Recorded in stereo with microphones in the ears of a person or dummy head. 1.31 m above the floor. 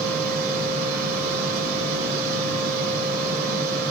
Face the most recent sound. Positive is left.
turn(degrees=-55)  # may be behind; listen again after turning